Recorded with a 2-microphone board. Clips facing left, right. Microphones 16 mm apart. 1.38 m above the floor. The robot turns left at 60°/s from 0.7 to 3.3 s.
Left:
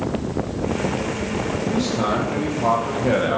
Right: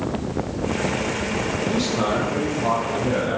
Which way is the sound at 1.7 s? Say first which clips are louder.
Left 1 dB; 150° right.